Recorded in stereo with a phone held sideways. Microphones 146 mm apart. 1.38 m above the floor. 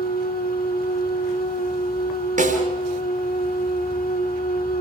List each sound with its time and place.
0.0 s a machine running: 80° left, 1.8 m
2.4 s a snare drum: 65° right (ahead or behind), 4.5 m